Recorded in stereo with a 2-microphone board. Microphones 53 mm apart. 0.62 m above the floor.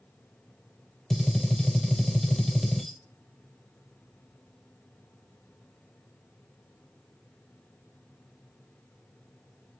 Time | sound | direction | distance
1.1 | a gunshot | 5° left (ahead or behind) | 0.7 m